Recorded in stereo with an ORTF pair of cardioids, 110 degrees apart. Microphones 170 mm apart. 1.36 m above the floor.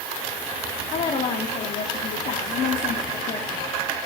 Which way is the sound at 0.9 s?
50° left.